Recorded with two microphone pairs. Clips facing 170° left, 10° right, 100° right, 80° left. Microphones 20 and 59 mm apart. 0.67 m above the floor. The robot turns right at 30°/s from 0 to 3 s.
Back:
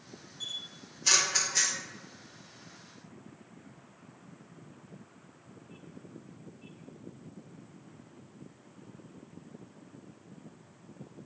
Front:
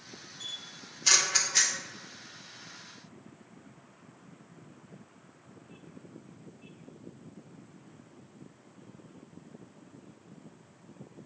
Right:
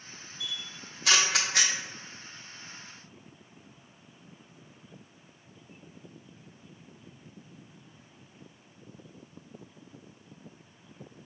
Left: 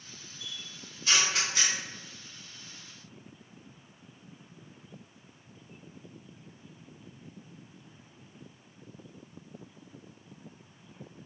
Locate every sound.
0.4 s a camera shutter: 110° right, 0.5 m; by 1.7 s 70° right, 0.5 m